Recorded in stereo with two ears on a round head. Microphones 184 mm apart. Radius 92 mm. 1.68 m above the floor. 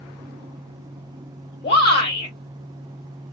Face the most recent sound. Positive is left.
turn(degrees=30)  # may be behind; listen again after turning